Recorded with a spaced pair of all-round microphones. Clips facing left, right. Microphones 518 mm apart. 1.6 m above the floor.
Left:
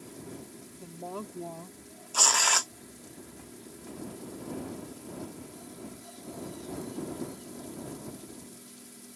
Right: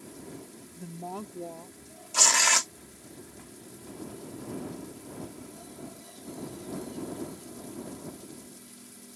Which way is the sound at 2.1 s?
45° right (ahead or behind).